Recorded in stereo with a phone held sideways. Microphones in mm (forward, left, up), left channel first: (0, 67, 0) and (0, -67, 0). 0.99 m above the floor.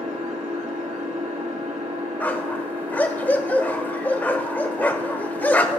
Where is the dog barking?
10° left (ahead or behind), 0.8 m.